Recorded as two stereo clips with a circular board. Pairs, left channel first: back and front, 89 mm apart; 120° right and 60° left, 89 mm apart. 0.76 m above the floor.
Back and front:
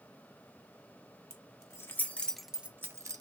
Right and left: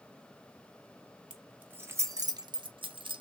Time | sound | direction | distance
1.3 | keys jangling | 135° left | 0.8 m